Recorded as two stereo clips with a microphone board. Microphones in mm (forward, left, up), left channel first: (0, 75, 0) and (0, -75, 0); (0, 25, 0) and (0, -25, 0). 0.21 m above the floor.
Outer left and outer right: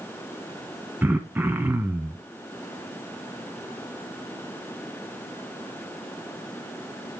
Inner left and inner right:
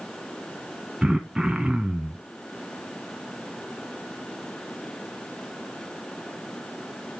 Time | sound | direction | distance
1.0 | throat clearing | 10° right (ahead or behind) | 1.3 m